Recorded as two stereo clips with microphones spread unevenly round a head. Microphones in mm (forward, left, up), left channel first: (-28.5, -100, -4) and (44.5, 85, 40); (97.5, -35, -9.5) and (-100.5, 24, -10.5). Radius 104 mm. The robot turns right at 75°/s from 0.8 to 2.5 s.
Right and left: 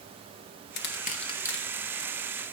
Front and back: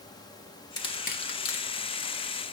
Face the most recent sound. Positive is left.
turn(degrees=40)